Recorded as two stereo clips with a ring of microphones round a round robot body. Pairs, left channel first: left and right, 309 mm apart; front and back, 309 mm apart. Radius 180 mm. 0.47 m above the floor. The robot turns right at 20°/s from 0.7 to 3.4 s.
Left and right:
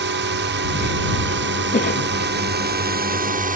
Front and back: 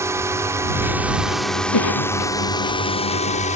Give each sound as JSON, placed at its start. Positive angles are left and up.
{"t": 0.0, "sound": "a drone", "azimuth_deg": -105}
{"t": 1.7, "sound": "a cough", "azimuth_deg": 25}